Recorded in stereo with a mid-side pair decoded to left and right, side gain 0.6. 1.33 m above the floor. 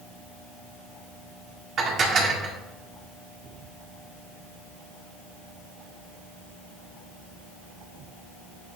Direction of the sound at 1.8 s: 50° right.